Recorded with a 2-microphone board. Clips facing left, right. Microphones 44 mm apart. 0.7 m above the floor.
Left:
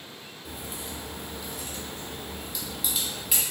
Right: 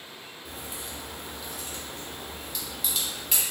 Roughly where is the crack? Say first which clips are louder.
Left 2 dB; centre.